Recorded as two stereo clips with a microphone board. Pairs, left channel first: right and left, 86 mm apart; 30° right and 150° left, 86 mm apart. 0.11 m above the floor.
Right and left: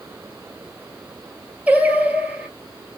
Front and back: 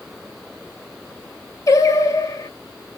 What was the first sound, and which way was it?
Singing, 20° left.